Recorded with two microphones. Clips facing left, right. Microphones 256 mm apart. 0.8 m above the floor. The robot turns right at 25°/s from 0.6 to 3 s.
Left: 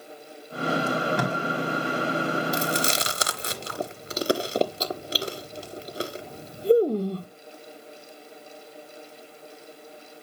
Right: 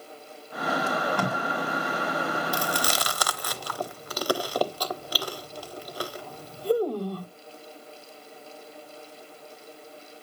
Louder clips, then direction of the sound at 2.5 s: Left 3 dB; 25° left (ahead or behind).